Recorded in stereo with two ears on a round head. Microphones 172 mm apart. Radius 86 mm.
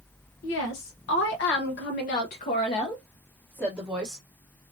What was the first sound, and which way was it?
A woman speaking, 65° left (ahead or behind).